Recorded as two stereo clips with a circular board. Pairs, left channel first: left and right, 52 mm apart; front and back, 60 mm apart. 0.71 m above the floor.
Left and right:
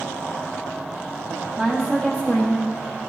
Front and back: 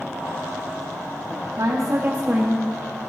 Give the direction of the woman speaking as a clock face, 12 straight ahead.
6 o'clock.